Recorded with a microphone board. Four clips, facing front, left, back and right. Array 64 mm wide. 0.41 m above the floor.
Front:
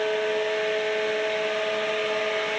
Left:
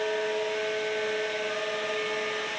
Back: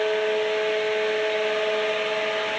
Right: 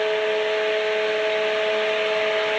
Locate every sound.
Only background noise.